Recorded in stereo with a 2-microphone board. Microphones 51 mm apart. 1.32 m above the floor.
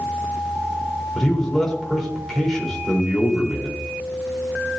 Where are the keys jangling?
No keys jangling in this recording.